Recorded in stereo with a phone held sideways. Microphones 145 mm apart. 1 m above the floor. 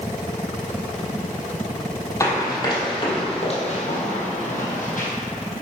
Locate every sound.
2.2 s running footsteps: 20° left (ahead or behind), 2.0 m; by 5.1 s 65° left (ahead or behind), 2.5 m